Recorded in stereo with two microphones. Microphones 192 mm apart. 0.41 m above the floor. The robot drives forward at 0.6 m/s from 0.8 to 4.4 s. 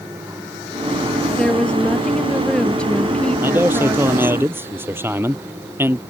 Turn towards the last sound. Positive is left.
turn(degrees=-10)  # may be behind; listen again after turning